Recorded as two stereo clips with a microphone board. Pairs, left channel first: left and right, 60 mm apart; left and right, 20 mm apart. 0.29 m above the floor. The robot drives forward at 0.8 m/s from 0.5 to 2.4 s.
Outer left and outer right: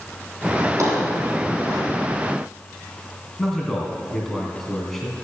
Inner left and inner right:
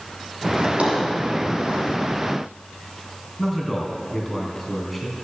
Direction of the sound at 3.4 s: 5° left (ahead or behind).